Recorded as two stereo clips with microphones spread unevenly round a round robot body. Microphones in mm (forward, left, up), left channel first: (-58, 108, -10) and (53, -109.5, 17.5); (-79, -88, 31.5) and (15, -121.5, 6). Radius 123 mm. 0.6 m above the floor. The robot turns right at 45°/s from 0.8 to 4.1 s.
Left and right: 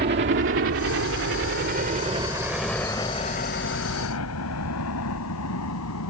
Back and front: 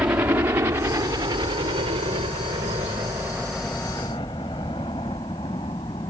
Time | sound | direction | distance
0.0 | a helicopter | 65° right | ?